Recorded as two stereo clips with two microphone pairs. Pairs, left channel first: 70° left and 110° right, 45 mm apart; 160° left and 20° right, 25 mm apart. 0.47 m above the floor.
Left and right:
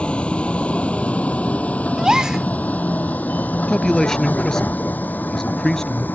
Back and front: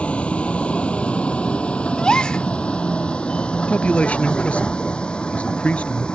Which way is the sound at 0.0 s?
130° left.